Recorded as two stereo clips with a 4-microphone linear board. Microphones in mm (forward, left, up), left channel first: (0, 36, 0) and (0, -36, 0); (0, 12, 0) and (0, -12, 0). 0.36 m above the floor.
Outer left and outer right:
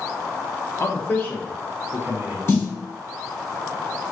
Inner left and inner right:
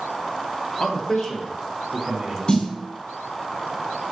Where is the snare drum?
35° left (ahead or behind), 1.5 m.